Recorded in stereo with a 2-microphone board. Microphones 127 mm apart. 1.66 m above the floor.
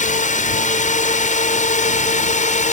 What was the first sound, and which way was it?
A drone, 75° left (ahead or behind).